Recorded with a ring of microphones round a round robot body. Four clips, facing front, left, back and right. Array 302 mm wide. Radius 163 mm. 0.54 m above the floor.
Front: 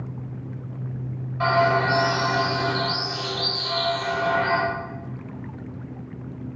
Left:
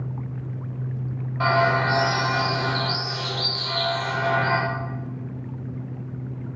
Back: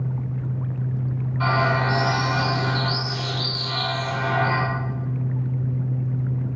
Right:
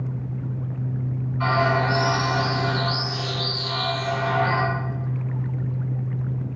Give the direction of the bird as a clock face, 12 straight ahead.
9 o'clock.